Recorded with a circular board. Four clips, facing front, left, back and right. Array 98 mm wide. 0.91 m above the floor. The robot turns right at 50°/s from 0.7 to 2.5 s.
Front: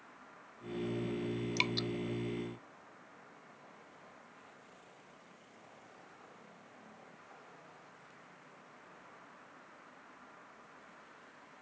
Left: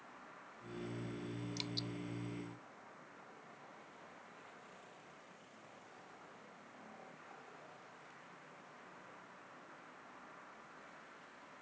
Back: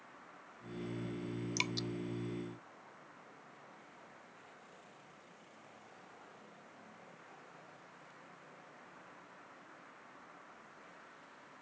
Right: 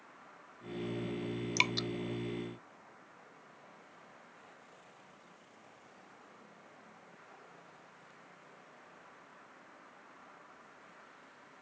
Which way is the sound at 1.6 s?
80° right.